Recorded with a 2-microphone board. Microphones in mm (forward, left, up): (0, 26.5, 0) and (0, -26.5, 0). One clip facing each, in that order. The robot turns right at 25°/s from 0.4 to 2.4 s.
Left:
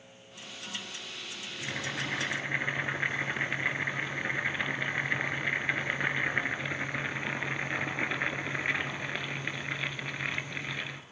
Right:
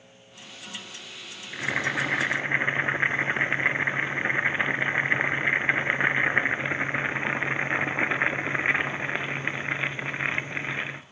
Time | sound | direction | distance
1.5 | boiling | 55° right (ahead or behind) | 1.0 m